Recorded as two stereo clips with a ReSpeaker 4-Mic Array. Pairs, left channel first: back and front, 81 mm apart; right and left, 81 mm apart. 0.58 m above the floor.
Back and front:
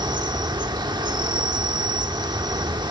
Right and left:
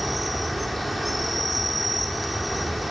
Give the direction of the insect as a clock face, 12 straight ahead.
12 o'clock.